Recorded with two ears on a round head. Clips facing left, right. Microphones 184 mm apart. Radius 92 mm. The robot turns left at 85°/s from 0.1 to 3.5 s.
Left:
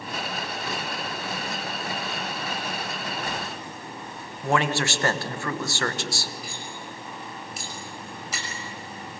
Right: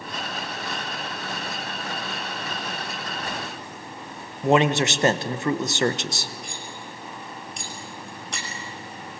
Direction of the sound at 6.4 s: 5° left (ahead or behind).